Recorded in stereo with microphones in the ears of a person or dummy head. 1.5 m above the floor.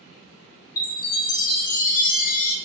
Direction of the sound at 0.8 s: 35° left (ahead or behind).